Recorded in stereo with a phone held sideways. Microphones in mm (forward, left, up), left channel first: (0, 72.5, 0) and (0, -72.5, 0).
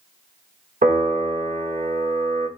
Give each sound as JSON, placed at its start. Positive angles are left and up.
{"t": 0.8, "sound": "a piano", "side_deg": -65, "distance_m": 1.9}